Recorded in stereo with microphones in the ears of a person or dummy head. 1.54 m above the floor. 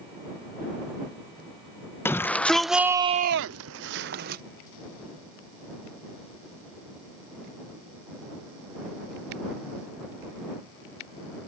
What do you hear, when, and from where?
2.0 s a shout: 15° left (ahead or behind); by 4.4 s 55° right (ahead or behind)